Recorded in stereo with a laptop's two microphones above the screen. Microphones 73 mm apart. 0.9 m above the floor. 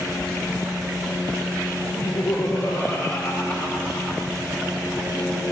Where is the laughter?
45° left (ahead or behind), 1.9 m; by 4.3 s 55° left (ahead or behind), 4 m.